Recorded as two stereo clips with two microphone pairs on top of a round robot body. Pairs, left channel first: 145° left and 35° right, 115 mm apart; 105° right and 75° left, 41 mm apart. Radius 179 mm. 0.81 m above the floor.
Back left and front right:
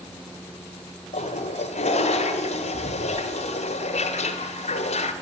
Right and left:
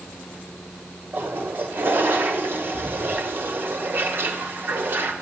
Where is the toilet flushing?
115° left, 1.5 m.